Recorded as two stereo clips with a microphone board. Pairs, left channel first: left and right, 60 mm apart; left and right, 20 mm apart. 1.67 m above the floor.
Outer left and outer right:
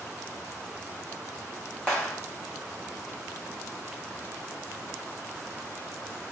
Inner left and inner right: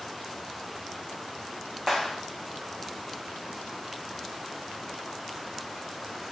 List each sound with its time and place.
1.9 s a clap: 10° left (ahead or behind), 1.1 m